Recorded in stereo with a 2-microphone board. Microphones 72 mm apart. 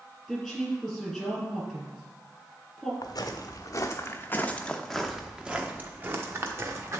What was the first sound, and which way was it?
A woman speaking, centre (ahead or behind).